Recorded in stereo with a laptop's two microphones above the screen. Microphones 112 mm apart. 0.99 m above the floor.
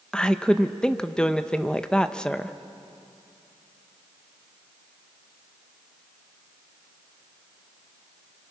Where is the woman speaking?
10° left (ahead or behind), 1.0 m.